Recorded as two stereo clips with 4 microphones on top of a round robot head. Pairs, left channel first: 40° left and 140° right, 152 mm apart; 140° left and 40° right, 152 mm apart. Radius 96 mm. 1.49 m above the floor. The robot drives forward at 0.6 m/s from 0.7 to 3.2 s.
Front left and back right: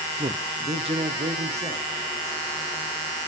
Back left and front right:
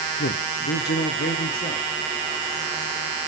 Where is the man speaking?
160° left, 0.7 m; by 1.9 s 170° left, 1.4 m.